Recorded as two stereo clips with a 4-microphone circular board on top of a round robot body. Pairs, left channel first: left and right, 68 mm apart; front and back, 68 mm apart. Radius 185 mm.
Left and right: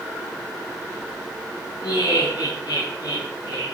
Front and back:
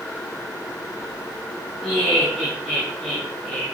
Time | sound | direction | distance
1.8 | laughter | 95° left | 5.5 m